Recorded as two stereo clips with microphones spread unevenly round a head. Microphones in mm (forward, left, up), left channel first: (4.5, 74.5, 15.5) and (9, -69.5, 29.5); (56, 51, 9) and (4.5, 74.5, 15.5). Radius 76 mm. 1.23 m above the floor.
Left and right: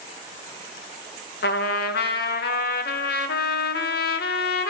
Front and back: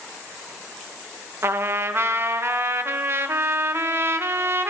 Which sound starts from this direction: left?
A trumpet, at 1.4 s.